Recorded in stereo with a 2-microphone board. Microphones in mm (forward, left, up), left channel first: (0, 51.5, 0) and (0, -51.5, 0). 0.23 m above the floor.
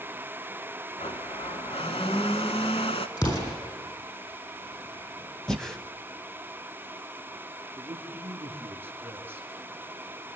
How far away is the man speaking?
About 3.5 m.